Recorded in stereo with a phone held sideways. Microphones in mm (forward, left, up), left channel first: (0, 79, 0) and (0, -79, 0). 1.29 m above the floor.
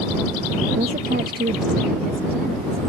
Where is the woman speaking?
50° right (ahead or behind); by 2.9 s 85° right.